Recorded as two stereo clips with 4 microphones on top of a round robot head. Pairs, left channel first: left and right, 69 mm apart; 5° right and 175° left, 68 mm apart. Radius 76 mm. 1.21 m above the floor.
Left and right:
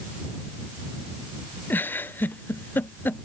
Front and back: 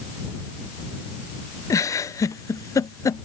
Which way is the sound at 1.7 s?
30° left.